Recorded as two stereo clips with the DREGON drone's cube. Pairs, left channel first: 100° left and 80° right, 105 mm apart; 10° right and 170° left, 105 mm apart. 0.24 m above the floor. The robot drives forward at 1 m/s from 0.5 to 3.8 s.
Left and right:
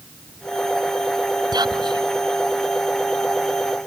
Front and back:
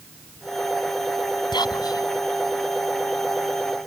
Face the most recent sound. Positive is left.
turn(degrees=-105)